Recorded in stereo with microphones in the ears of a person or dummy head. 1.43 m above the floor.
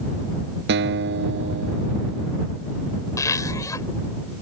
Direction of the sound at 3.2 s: 20° left (ahead or behind).